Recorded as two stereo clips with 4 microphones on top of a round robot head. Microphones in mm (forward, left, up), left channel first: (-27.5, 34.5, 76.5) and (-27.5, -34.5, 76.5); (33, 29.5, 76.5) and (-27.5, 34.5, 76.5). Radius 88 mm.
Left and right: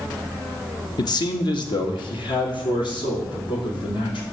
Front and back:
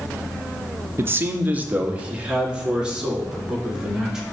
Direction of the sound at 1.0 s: 120° left.